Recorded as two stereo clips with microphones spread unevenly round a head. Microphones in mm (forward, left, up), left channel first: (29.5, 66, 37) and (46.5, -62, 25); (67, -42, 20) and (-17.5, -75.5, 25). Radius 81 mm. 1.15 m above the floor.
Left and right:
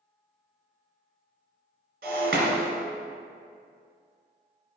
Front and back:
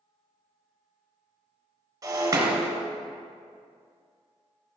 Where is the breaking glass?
120° right, 2 m.